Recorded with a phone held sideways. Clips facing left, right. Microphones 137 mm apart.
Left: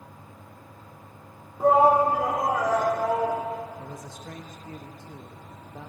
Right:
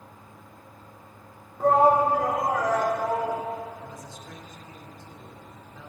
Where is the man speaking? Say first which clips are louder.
Left 2 dB; 55° left (ahead or behind), 0.9 m.